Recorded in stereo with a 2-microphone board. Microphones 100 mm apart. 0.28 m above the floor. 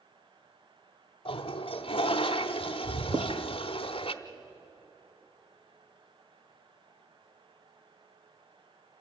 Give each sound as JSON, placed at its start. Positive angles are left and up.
{"t": 1.2, "sound": "a toilet flushing", "side_deg": 70, "distance_m": 0.9}
{"t": 3.1, "sound": "writing", "side_deg": -45, "distance_m": 2.0}